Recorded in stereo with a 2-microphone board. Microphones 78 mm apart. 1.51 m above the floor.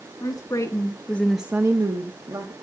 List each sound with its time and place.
0.2 s a woman speaking: 55° left (ahead or behind), 1.6 m; by 2.5 s 75° right (ahead or behind), 1.4 m